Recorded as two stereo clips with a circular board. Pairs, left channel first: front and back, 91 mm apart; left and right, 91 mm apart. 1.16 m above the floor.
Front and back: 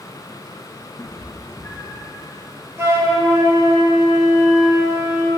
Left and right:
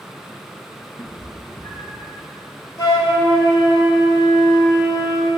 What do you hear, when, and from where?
1.0 s a cat meowing: 55° left, 4 m; by 2.1 s 70° left, 3.5 m
2.8 s a flute: 125° left, 5.5 m